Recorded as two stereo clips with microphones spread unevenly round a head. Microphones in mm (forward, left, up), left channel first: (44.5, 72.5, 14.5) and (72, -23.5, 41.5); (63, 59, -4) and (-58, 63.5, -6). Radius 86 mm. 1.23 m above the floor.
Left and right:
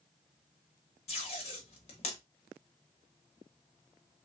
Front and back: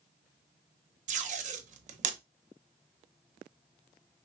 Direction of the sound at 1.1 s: 160° left.